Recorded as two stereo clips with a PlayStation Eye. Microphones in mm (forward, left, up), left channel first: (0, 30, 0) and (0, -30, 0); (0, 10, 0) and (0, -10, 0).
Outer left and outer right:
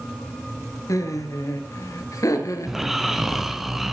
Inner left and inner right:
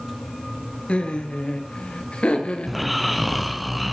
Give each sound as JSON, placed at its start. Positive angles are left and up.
{"t": 0.9, "sound": "laughter", "side_deg": 65, "distance_m": 3.0}
{"t": 2.7, "sound": "snoring", "side_deg": -5, "distance_m": 1.4}